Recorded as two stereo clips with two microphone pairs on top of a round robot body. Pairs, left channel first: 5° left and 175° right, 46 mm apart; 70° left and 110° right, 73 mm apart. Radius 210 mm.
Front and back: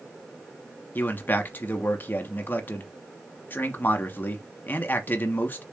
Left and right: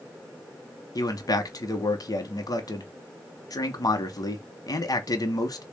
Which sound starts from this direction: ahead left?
A man speaking, at 0.9 s.